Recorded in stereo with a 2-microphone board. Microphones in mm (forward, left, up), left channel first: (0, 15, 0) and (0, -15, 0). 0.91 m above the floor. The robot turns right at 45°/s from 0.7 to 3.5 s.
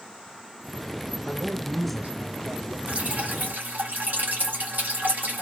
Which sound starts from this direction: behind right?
A man speaking, at 1.2 s.